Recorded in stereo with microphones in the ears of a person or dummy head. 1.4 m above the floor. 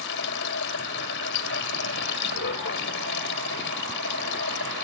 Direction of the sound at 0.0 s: 65° left (ahead or behind).